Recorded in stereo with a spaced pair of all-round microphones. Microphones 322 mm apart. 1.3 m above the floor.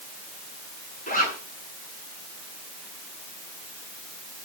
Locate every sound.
1.1 s a zipper: 25° left (ahead or behind), 8.5 m